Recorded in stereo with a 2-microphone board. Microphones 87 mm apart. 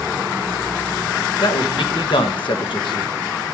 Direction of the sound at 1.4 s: 70° left (ahead or behind).